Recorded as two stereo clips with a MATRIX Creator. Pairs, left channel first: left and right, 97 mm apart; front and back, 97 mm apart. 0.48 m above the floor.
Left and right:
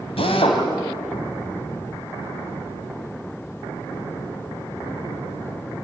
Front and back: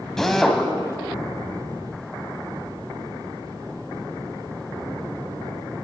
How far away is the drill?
About 3 m.